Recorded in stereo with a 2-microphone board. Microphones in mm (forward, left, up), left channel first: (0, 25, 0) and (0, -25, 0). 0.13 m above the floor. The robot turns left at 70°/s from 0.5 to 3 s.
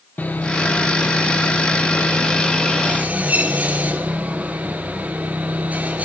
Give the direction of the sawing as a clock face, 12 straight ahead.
7 o'clock.